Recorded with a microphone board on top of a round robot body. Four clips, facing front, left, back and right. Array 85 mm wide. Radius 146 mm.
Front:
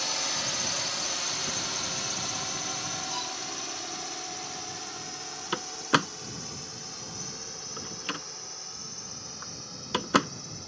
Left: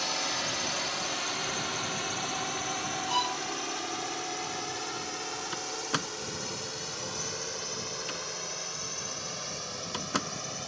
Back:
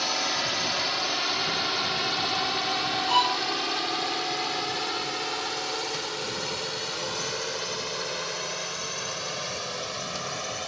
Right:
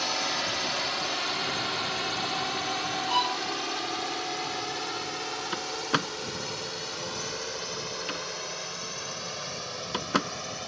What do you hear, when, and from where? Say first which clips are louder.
0.0 s a drone: right 3 dB, back 6 dB; 160° right; by 10.7 s 170° right
3.1 s a violin: right 3 dB, back 14 dB; 170° right
5.5 s a door slam: right 6 dB, front 4 dB; 20° right